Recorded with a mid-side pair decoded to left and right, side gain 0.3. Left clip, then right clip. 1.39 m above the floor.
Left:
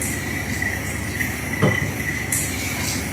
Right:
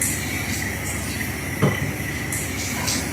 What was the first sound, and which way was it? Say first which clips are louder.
A cupboard door: left 3 dB; 10° left.